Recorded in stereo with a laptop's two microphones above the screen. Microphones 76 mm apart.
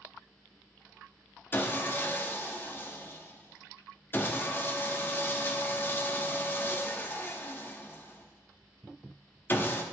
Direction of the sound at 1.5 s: 30° left (ahead or behind).